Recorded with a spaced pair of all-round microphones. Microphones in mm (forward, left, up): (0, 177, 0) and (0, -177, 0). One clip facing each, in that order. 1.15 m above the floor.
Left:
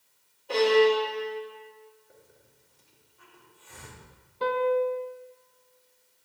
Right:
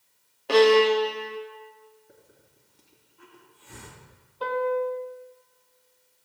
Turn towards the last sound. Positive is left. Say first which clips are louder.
# left 1 dB
turn(degrees=35)  # may be behind; listen again after turning